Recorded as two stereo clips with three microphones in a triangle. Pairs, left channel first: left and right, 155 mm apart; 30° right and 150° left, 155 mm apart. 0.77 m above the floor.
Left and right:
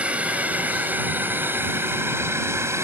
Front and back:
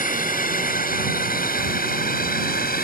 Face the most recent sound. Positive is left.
turn(degrees=-20)